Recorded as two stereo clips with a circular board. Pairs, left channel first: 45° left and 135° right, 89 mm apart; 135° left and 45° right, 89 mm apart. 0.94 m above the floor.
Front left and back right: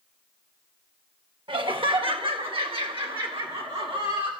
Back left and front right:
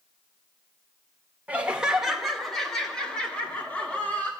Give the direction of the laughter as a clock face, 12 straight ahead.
4 o'clock.